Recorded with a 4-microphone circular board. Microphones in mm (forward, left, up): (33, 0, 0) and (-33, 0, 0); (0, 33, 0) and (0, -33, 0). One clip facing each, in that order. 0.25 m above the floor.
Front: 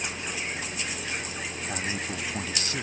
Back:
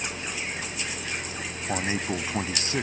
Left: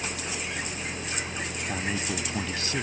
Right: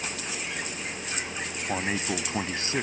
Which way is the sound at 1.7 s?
140° right.